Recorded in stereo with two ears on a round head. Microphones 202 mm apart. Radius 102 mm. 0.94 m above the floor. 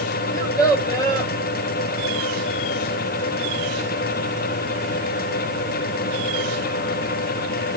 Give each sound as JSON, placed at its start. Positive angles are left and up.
{"t": 0.3, "sound": "a child speaking", "side_deg": 15, "distance_m": 1.3}